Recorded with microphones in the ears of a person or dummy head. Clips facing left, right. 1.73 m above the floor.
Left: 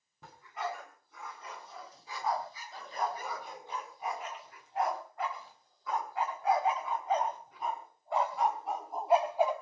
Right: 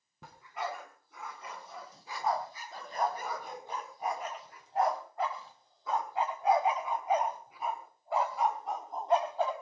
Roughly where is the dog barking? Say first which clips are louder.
Even; right.